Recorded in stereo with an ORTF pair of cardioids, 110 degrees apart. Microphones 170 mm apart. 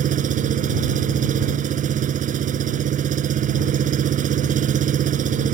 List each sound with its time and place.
0.0 s an engine running: 55° right